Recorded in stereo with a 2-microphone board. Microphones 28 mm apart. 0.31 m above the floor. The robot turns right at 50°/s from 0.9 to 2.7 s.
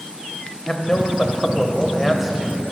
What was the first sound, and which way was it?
A man speaking, 110° left.